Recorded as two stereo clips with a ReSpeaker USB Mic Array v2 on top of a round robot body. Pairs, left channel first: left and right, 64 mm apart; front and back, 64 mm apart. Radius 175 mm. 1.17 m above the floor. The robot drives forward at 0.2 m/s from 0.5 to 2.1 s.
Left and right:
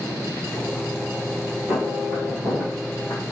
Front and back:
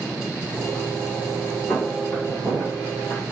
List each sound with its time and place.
1.7 s footsteps: 95° right, 1.3 m; by 3.3 s 160° right, 1.6 m